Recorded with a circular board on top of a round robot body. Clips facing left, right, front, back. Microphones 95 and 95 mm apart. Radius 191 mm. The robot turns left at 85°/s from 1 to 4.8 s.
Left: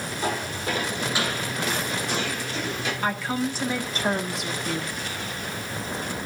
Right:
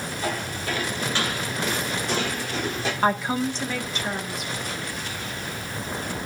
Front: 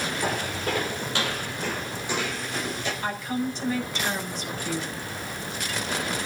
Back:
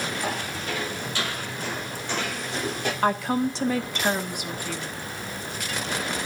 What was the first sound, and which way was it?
Footsteps, 30° left.